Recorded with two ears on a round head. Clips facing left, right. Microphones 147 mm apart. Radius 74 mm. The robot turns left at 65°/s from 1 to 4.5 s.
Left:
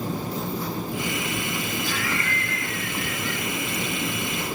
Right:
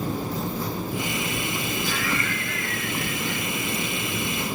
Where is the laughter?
70° right, 1.2 m; by 3.5 s 175° right, 1.2 m.